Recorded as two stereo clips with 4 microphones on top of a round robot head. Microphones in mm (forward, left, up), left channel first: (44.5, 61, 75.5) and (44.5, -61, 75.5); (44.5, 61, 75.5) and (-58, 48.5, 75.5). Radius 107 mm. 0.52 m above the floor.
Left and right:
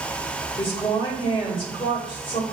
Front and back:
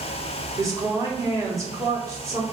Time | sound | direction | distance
0.6 | a woman speaking | 130° left | 1.6 m